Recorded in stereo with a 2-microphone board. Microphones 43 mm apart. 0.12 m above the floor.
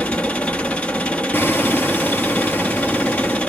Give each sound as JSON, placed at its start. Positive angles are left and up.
{"t": 0.0, "sound": "an engine running", "side_deg": 30, "distance_m": 1.5}
{"t": 1.3, "sound": "hammering", "side_deg": 55, "distance_m": 1.9}